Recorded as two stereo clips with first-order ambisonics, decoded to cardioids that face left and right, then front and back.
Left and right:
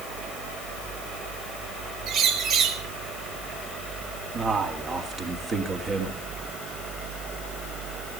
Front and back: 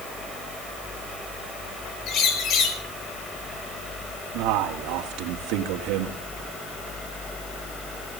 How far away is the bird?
About 2 m.